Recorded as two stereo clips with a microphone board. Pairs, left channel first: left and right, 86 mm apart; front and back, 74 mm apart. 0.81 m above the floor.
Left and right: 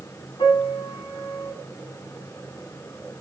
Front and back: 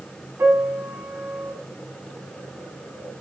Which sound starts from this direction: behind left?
A piano, at 0.4 s.